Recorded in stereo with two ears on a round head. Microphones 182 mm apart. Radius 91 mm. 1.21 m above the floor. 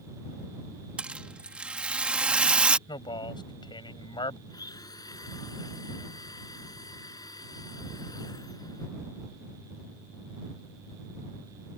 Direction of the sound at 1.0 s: 5° right (ahead or behind).